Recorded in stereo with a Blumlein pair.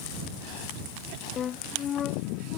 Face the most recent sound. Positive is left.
turn(degrees=25)